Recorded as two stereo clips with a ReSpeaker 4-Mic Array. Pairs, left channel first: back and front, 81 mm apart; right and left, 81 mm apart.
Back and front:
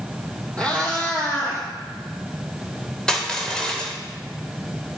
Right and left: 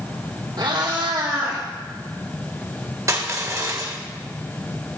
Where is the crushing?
105° left, 1.1 m.